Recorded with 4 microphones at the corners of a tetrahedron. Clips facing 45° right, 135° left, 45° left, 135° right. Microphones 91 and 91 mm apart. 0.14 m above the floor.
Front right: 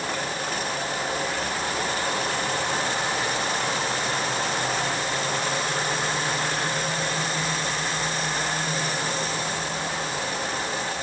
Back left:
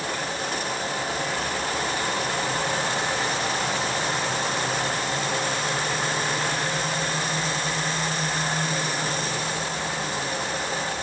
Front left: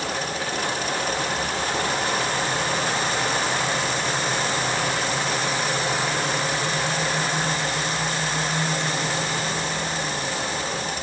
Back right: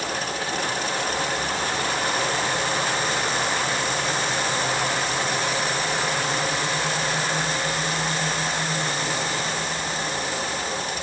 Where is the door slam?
I don't hear a door slam.